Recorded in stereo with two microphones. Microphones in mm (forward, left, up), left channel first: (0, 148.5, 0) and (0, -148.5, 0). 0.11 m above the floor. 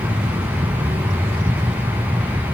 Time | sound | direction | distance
0.0 | an aircraft | 20° right (ahead or behind) | ?